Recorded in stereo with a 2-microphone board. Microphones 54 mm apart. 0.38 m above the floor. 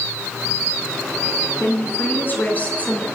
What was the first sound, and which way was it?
A woman speaking, 50° left (ahead or behind).